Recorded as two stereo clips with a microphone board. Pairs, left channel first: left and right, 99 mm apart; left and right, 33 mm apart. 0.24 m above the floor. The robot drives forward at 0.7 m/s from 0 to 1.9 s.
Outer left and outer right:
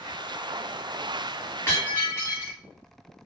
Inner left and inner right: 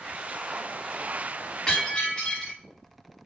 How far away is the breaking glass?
About 5 m.